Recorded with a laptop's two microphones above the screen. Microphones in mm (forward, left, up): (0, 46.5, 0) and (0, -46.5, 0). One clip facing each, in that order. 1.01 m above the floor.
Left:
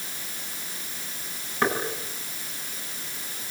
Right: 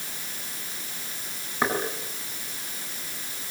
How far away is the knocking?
About 8.5 m.